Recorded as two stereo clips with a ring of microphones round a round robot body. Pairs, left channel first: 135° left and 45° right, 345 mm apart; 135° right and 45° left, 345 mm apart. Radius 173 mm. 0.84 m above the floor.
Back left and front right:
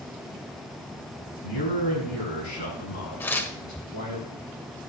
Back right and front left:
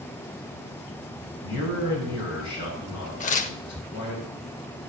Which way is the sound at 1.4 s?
Straight behind.